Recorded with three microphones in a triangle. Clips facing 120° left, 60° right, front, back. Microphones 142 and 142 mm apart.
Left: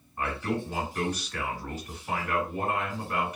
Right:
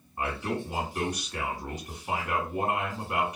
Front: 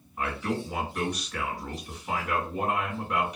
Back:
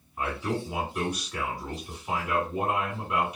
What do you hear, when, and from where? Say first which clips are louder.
0.2 s a man speaking: left 1 dB, even; 105° right, 1.5 m